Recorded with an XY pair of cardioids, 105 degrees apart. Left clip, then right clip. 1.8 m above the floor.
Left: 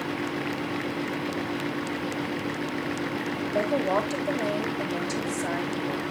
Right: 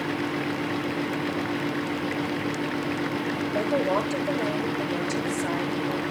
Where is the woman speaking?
20° left, 5 m.